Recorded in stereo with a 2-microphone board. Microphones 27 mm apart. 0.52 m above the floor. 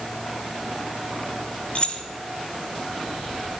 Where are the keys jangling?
45° left (ahead or behind), 1.0 m.